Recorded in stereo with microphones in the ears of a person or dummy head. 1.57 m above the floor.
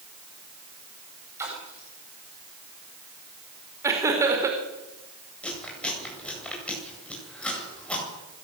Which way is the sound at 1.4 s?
15° right (ahead or behind).